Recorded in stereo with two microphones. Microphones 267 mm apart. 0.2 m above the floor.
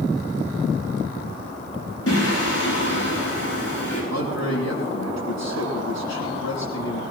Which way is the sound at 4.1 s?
80° left.